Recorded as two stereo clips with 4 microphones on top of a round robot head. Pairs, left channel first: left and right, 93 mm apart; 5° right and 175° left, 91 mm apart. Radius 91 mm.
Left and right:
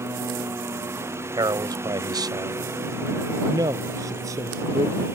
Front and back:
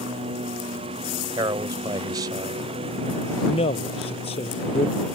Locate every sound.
0.0 s a lawn mower: 150° right
1.4 s a man speaking: 135° right
3.5 s a man speaking: 30° right